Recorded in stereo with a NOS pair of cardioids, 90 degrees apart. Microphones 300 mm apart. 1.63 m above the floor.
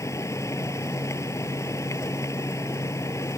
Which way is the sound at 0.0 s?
10° left.